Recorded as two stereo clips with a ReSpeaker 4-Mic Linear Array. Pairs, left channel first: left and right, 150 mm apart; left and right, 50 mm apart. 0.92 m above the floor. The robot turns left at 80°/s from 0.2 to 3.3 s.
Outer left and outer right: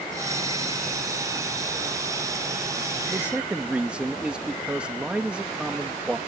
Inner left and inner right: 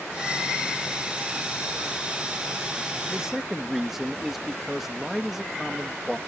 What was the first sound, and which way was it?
A man speaking, 20° right (ahead or behind).